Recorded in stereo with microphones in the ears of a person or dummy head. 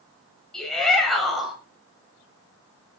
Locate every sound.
0.5 s a shout: 5° left (ahead or behind), 9 m; by 1.6 s centre (ahead or behind), 8.5 m